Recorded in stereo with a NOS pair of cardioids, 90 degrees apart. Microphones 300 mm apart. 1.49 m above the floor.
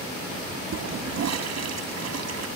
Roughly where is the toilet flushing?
Ahead right.